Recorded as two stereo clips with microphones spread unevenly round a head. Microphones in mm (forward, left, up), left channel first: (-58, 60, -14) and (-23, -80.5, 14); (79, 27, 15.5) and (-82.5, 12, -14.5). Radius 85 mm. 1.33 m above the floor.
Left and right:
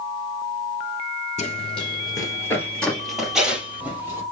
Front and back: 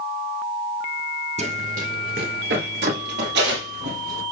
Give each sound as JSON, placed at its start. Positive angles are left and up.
{"t": 1.4, "sound": "running footsteps", "azimuth_deg": 140, "distance_m": 1.8}